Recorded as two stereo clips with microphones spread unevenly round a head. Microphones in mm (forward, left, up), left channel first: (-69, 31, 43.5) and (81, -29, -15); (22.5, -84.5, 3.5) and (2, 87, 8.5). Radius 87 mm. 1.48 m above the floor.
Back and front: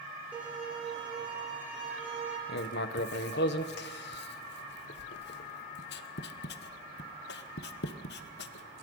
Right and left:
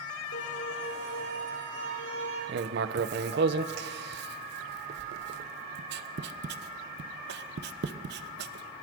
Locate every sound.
0.3 s a violin: 110° right, 6.5 m
2.5 s writing: 130° left, 1.0 m